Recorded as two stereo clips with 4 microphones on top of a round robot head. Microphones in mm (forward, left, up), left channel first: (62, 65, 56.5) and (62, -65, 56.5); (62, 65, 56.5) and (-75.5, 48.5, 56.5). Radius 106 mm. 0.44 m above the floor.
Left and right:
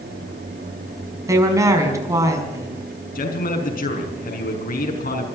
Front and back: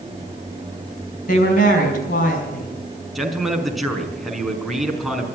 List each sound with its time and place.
1.3 s a woman speaking: 25° right, 5 m
3.1 s a man speaking: 95° left, 4.5 m